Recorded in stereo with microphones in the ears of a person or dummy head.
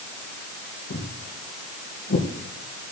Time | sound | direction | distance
0.9 | footsteps | 70° left (ahead or behind) | 4.5 m